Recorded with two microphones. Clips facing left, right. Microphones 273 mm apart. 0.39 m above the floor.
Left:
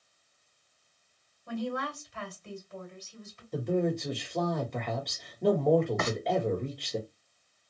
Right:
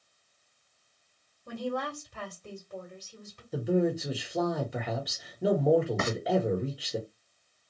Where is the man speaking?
5° right (ahead or behind), 0.9 m.